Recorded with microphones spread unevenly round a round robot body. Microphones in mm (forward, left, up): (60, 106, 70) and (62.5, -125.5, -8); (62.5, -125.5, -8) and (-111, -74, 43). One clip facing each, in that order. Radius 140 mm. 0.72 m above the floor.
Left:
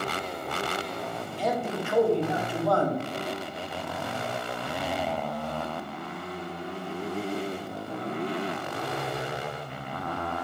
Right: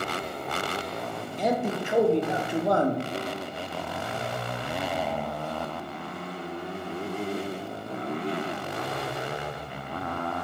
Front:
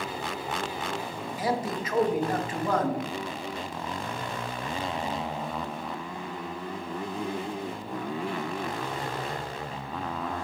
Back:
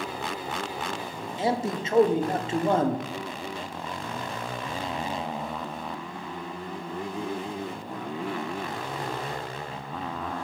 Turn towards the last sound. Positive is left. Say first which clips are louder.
# right 3 dB, back 2 dB
turn(degrees=-125)